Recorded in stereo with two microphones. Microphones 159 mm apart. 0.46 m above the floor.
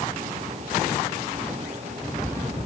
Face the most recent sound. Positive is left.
No sound to turn to.